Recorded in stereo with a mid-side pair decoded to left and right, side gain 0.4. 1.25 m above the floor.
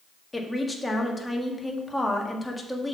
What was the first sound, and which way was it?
A woman speaking, 15° left.